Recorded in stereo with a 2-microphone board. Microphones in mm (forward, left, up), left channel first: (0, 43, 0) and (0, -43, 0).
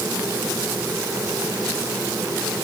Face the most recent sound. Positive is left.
No sound to turn to.